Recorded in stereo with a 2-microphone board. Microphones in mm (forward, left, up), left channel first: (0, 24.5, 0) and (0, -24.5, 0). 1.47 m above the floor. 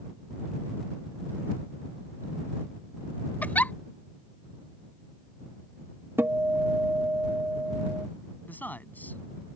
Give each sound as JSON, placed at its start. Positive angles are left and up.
{"t": 3.4, "sound": "a giggle", "side_deg": 35}
{"t": 6.2, "sound": "a guitar", "side_deg": -50}
{"t": 8.5, "sound": "a man speaking", "side_deg": 35}